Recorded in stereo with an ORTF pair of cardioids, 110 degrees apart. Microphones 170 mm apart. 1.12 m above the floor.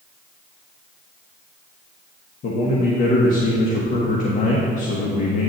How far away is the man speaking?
About 1.3 m.